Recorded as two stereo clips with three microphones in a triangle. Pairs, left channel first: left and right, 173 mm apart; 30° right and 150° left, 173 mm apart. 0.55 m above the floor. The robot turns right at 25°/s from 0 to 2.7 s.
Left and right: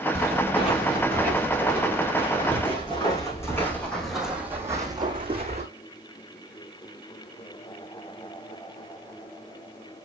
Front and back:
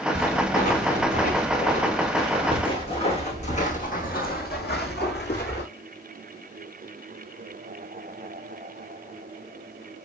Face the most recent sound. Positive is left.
turn(degrees=-40)